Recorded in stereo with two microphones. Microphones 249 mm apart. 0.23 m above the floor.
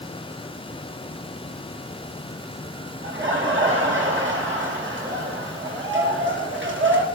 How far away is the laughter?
About 3.5 m.